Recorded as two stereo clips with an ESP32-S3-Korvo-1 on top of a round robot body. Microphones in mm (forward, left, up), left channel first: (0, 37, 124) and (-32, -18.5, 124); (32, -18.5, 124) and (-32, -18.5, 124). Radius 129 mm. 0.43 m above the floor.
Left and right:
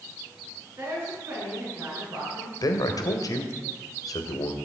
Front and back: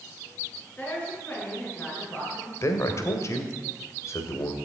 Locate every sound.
0.8 s a woman speaking: 70° right, 8 m
2.6 s a man speaking: 40° left, 2 m